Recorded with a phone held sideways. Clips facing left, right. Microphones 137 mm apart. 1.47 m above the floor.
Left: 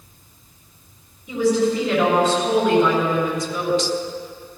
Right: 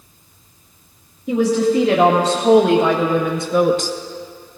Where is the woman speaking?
85° right, 2.5 m; by 3.9 s 45° right (ahead or behind), 0.8 m.